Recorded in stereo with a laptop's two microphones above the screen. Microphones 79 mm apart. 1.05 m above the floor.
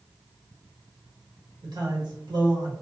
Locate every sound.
1.6 s a man speaking: 65° right (ahead or behind), 1.1 m